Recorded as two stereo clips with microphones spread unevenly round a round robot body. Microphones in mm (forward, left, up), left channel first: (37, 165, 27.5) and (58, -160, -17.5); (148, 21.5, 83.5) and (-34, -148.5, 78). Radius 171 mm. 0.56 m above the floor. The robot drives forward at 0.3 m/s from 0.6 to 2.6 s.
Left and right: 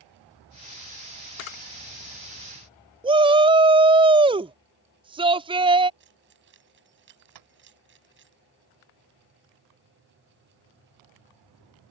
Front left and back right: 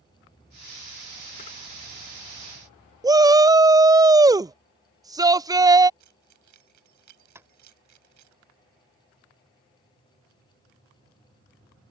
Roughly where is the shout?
Right.